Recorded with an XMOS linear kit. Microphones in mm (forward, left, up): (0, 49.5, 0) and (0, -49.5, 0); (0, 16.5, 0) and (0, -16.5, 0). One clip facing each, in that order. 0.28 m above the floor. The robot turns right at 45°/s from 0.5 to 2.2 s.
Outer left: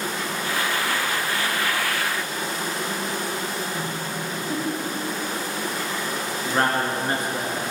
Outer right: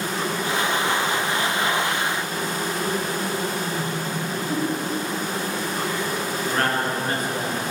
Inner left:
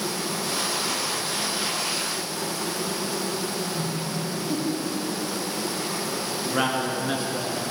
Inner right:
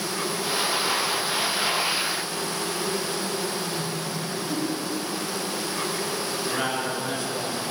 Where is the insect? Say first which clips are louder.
Outer right 2 dB, inner right 1 dB; 140° right, 3.5 m; by 7.7 s 65° right, 3.5 m.